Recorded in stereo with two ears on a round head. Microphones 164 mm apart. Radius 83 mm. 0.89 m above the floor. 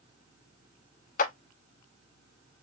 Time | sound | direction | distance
1.2 | a clap | 45° left (ahead or behind) | 0.8 m